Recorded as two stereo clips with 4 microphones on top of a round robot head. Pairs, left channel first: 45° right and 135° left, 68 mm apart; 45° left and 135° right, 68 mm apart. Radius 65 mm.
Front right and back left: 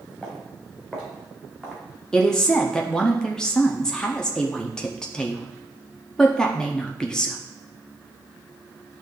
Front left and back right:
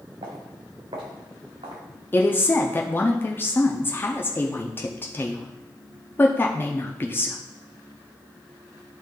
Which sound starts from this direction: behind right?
Footsteps, at 0.2 s.